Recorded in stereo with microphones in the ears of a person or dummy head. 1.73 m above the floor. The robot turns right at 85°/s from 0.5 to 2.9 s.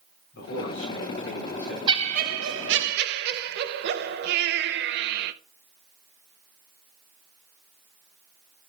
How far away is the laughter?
About 0.7 m.